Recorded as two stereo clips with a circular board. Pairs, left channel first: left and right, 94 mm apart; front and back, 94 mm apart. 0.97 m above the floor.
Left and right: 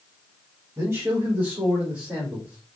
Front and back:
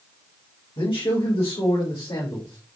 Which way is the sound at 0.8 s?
30° right.